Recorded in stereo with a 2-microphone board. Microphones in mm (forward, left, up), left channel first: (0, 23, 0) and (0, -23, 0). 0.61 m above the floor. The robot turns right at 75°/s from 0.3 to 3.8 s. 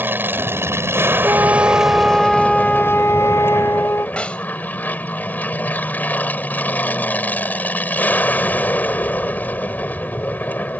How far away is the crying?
No crying in this recording.